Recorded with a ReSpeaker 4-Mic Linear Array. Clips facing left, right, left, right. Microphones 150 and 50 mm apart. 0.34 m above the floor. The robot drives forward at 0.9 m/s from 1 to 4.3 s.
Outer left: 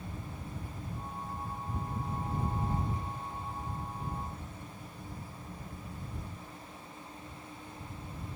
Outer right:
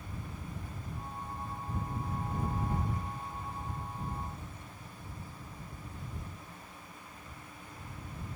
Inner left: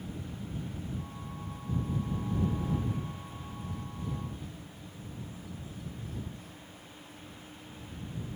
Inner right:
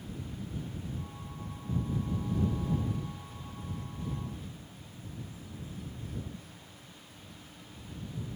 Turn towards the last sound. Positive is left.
No sound to turn to.